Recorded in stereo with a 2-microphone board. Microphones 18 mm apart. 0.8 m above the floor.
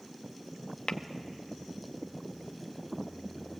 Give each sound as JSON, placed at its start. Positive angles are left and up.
{"t": 0.9, "sound": "tapping", "side_deg": 50, "distance_m": 0.9}